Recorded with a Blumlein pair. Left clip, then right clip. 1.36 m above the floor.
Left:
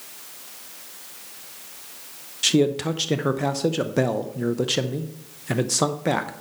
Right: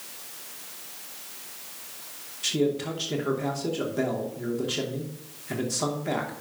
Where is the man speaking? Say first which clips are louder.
Left 6 dB; 40° left, 0.8 m.